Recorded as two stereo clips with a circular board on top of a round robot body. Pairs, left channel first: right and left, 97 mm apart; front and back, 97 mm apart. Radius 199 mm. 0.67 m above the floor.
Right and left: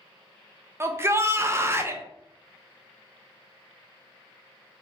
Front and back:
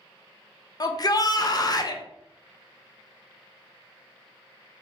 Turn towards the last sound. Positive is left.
turn(degrees=35)